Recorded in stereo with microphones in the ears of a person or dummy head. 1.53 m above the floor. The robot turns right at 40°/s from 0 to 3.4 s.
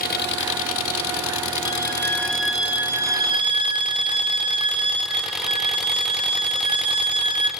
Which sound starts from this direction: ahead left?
An engine running, at 0.0 s.